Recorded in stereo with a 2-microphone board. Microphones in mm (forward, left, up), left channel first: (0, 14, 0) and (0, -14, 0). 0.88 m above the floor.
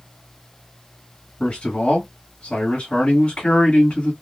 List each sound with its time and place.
1.4 s a man speaking: 45° left (ahead or behind), 1.8 m